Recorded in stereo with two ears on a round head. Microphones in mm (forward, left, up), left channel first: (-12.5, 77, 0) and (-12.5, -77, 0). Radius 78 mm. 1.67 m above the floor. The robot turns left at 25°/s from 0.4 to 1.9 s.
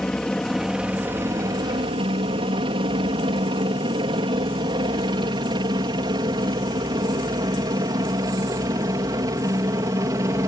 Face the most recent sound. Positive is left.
turn(degrees=-20)  # may be behind; listen again after turning